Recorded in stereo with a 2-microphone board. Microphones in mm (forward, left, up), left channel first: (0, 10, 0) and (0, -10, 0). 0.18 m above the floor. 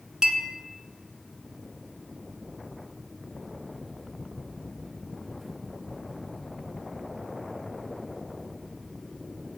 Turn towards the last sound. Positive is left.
turn(degrees=-40)  # may be behind; listen again after turning